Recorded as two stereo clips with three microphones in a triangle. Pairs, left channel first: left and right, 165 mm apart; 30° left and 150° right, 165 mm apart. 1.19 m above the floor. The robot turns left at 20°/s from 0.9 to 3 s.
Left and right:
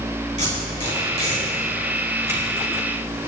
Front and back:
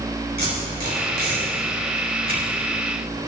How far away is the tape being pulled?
About 3.5 m.